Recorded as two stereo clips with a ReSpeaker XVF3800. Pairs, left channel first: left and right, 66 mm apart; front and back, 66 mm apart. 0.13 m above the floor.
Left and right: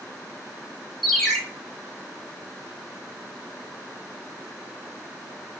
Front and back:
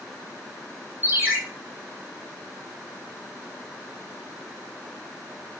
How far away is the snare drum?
No snare drum in this recording.